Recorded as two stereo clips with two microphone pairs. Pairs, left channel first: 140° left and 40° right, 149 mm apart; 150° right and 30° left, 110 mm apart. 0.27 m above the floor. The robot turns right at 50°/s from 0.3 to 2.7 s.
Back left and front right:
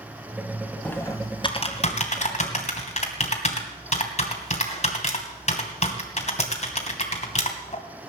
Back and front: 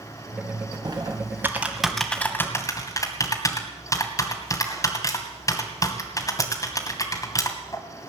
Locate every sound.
0.8 s typing on a keyboard: 65° left, 2.5 m; by 7.8 s 155° left, 2.5 m